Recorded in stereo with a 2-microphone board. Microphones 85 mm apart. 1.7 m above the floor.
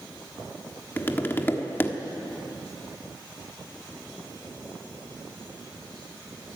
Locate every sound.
1.0 s tapping: 25° left (ahead or behind), 1.3 m